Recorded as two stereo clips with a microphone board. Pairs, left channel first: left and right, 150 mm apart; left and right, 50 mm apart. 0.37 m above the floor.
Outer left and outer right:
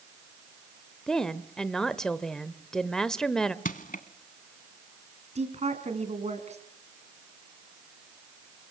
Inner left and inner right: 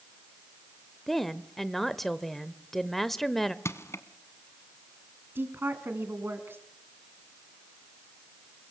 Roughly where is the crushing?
Left.